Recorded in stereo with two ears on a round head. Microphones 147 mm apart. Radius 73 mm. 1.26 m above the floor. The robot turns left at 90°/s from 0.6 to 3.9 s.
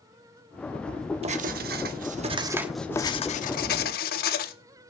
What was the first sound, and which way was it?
Writing, 45° right.